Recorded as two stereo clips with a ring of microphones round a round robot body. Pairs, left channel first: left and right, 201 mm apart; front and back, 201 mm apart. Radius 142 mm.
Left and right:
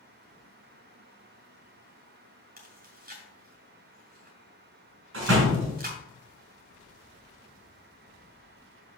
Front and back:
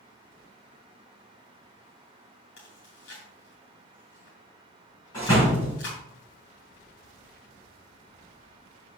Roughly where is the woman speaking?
No woman speaking in this recording.